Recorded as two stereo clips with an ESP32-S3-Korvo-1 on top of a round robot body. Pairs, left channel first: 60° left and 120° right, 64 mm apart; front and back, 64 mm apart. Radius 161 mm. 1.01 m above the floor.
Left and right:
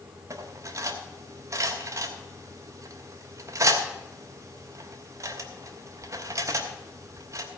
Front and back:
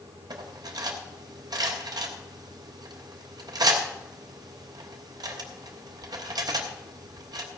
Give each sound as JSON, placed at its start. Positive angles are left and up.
{"t": 0.3, "sound": "cutlery clinking", "azimuth_deg": -160, "distance_m": 1.3}